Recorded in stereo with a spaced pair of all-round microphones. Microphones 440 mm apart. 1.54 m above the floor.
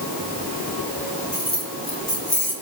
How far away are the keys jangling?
About 7 m.